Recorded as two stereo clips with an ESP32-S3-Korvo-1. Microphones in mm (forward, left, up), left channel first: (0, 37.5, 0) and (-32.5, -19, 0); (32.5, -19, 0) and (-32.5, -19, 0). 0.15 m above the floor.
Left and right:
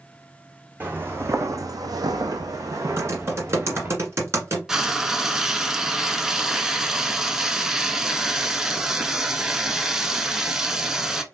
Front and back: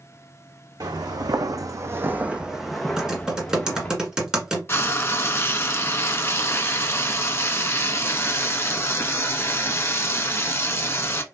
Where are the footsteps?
175° left, 0.8 m; by 4.0 s 70° right, 1.3 m.